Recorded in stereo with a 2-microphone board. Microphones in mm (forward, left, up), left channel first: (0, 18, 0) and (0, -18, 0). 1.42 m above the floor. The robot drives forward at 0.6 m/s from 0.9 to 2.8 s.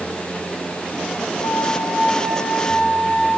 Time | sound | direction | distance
1.4 | a flute | 75° left (ahead or behind) | 7.5 m